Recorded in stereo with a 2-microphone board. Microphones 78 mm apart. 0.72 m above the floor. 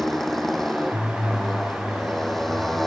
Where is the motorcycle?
5° left (ahead or behind).